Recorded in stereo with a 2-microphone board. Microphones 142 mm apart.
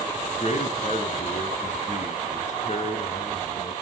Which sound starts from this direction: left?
A man speaking, at 0.3 s.